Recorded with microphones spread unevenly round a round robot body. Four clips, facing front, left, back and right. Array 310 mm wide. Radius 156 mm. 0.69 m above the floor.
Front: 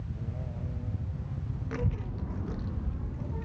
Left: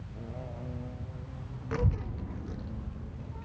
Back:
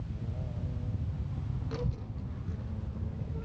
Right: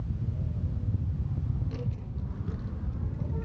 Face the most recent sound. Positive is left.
turn(degrees=-30)